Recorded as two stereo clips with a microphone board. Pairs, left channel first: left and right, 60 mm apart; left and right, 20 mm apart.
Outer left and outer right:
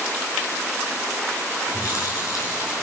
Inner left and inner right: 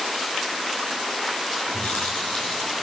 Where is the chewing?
70° left (ahead or behind), 5.5 m.